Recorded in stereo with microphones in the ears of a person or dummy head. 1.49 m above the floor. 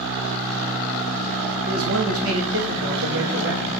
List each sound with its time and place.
1.7 s a man speaking: 90° right, 2 m; by 3.7 s 65° right (ahead or behind), 3 m